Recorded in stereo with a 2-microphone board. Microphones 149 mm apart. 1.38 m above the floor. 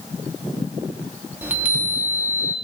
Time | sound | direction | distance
1.4 | a chime | 10° right (ahead or behind) | 0.9 m